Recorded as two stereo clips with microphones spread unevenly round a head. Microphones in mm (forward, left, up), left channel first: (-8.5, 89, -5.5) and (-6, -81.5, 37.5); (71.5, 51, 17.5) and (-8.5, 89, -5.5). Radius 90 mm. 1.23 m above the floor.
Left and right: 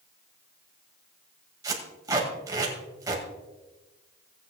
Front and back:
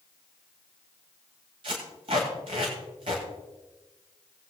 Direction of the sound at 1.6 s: 150° right.